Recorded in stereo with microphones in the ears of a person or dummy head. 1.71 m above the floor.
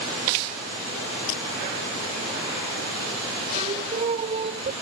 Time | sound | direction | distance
1.3 | breaking glass | 85° left | ?
3.5 | singing | 35° right (ahead or behind) | ?